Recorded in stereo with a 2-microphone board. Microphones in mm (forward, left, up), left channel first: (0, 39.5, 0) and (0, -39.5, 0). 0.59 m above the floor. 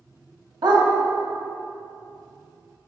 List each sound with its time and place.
0.6 s a dog barking: 70° right (ahead or behind), 1.6 m